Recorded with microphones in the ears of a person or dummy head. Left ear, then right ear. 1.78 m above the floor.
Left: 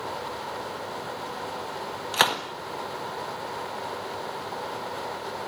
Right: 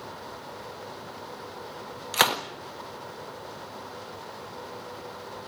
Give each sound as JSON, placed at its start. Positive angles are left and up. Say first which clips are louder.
{"t": 2.1, "sound": "a gunshot", "louder": "even", "side_deg": -10, "distance_m": 1.4}